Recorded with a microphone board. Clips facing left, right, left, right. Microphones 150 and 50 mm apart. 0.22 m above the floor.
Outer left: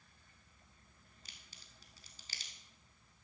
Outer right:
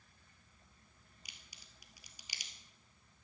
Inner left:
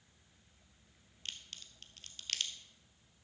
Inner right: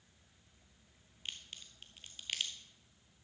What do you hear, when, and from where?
1.2 s a crack: 15° right (ahead or behind), 1.2 m